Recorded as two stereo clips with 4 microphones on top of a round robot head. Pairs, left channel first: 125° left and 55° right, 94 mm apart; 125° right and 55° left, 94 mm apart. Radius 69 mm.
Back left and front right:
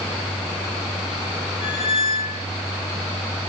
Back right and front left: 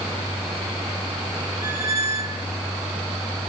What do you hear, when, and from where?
1.6 s a squeak: 115° left, 2.5 m